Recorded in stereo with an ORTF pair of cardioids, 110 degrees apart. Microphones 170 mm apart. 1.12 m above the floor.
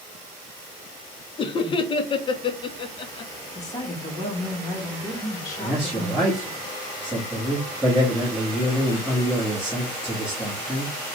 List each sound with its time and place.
1.4 s laughter: 30° left, 0.7 m
3.5 s a woman speaking: 20° left, 1.2 m
5.6 s a man speaking: straight ahead, 1.3 m